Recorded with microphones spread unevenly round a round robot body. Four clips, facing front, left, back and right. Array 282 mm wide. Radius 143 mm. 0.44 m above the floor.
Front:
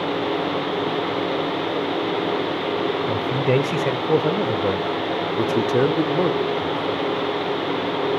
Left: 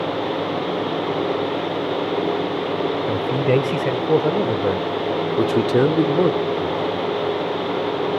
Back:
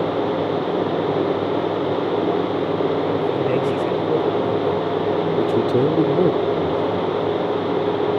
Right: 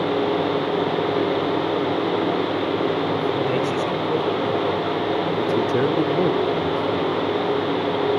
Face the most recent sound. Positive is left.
turn(degrees=-175)